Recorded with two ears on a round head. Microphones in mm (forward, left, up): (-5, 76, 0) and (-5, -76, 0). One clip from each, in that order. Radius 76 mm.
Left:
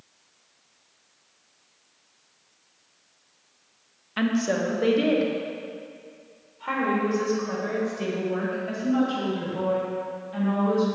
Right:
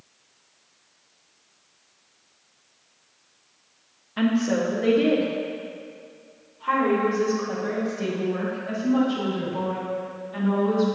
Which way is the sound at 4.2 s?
50° left (ahead or behind).